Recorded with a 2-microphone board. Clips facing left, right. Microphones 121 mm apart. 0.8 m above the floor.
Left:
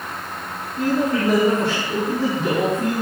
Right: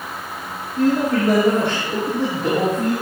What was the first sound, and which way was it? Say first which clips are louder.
A man speaking: right 3 dB; 70° right (ahead or behind).